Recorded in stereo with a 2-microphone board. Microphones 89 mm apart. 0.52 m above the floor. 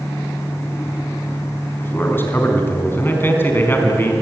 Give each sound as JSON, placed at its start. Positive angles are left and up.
{"t": 1.8, "sound": "a man speaking", "side_deg": 25, "distance_m": 4.5}